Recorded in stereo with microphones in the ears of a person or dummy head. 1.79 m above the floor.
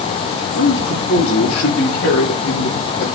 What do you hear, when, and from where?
0.6 s a man speaking: 65° left (ahead or behind), 5 m; by 3.2 s 55° left (ahead or behind), 4 m